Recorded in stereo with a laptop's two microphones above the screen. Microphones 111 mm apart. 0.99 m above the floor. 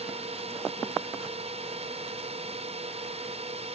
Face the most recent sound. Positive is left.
turn(degrees=-65)  # may be behind; listen again after turning